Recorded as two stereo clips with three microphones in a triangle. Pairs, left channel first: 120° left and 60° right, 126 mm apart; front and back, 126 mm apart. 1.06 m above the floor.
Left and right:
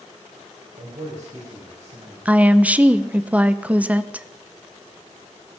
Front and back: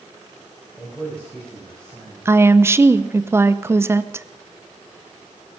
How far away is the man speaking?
About 4 m.